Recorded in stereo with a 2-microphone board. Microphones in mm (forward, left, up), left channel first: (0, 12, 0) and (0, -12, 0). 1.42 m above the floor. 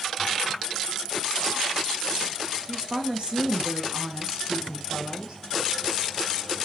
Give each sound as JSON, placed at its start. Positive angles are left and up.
{"t": 2.7, "sound": "a woman speaking", "side_deg": -35, "distance_m": 1.4}